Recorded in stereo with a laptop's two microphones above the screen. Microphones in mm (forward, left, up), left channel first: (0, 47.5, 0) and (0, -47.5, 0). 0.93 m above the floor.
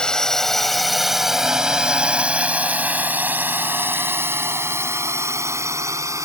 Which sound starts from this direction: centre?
A drone, at 0.0 s.